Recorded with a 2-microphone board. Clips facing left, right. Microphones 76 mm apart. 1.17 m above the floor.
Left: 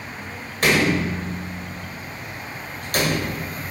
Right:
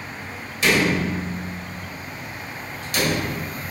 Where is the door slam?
50° left (ahead or behind), 3 m.